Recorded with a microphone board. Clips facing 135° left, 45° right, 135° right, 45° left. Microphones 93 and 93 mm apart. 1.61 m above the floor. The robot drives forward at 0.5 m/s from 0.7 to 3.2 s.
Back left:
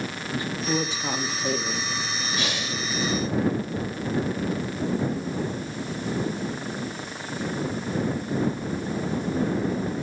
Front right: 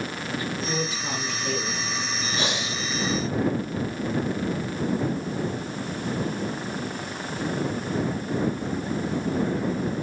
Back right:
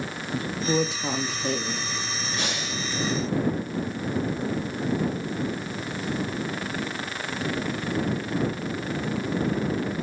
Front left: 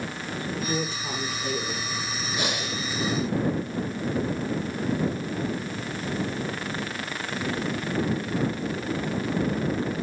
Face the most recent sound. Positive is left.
turn(degrees=-60)